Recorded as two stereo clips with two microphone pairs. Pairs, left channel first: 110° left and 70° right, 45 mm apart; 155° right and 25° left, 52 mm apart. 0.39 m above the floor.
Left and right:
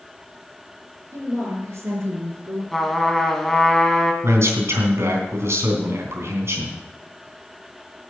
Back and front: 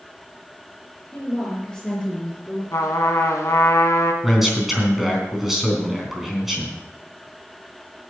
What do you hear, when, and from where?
1.1 s a woman speaking: 80° right, 5.5 m; by 2.6 s 95° right, 4 m
2.7 s a trumpet: 165° right, 1.5 m
4.2 s a man speaking: 60° right, 3.5 m